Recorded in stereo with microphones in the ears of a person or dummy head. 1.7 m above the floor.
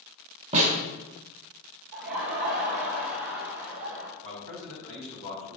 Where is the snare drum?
40° right (ahead or behind), 2.5 m.